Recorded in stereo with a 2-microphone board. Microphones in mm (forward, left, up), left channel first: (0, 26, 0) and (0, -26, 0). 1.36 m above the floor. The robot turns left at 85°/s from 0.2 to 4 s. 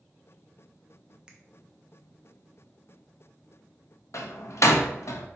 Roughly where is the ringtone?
I don't hear a ringtone.